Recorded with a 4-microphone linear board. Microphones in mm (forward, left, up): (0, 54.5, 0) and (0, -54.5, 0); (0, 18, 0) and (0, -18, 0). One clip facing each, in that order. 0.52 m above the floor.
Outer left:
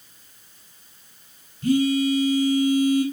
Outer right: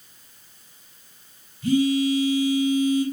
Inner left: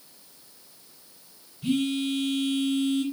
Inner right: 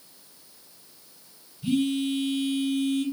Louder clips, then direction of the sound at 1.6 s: Even, inner right 1 dB; 50° left (ahead or behind).